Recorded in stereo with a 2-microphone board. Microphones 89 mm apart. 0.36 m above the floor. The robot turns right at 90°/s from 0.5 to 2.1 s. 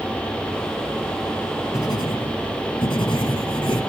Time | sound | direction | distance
1.7 | writing | 35° left | 2.5 m